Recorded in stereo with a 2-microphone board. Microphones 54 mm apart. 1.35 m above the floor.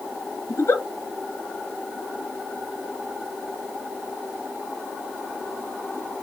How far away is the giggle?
About 0.9 m.